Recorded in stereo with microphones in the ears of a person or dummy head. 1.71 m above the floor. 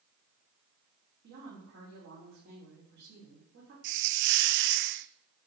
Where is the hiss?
50° right (ahead or behind), 0.5 m.